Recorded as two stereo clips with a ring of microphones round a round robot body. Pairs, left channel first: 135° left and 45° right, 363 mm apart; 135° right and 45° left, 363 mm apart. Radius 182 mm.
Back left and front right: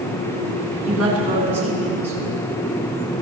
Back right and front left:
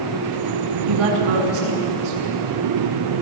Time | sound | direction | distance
0.8 | a woman speaking | 15° left | 5 m